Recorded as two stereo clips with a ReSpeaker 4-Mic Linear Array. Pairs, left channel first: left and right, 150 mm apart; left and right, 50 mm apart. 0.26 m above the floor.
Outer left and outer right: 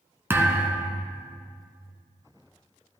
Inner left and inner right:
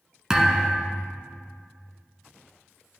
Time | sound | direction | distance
0.3 | a thud | 15° right (ahead or behind) | 1.4 m